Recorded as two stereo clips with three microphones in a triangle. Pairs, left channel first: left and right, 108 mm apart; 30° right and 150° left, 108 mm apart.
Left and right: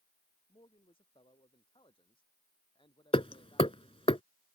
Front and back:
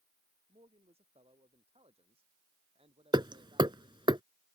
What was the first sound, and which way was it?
A man speaking, 125° left.